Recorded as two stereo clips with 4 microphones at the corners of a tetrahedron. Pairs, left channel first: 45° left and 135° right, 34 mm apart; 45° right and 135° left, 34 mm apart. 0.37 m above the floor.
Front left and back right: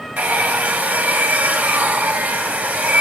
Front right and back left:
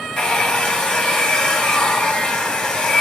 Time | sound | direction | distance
0.2 | a hair dryer | 95° right | 2.5 m